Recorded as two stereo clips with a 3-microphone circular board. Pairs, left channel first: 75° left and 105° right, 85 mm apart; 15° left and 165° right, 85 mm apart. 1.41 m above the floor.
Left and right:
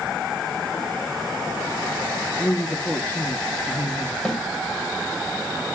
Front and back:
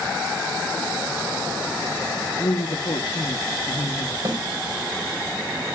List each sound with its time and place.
2.4 s a woman speaking: 5° left, 1.2 m
4.2 s a snare drum: 155° left, 3.5 m